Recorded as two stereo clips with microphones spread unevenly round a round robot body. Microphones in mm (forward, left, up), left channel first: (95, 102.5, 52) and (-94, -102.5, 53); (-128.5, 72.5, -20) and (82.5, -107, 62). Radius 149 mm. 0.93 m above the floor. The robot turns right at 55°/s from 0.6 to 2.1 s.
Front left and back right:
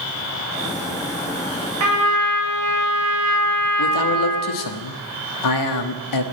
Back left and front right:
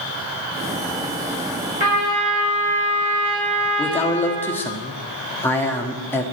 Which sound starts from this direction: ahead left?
A man speaking, at 3.8 s.